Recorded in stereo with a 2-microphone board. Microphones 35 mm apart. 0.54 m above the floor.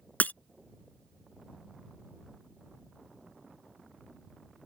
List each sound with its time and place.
0.2 s breaking glass: 65° left (ahead or behind)